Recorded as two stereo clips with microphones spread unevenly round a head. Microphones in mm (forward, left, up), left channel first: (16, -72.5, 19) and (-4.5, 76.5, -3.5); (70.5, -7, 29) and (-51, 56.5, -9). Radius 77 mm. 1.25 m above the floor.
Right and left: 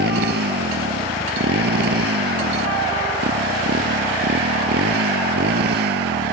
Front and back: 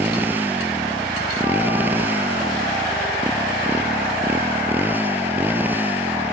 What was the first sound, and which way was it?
A motorcycle, 75° left.